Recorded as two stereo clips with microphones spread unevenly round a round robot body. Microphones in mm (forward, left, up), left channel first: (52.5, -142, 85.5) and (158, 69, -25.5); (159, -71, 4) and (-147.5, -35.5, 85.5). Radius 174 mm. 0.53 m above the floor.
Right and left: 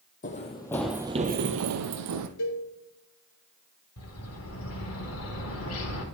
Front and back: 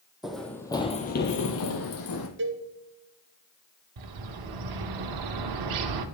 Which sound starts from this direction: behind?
A bird, at 4.0 s.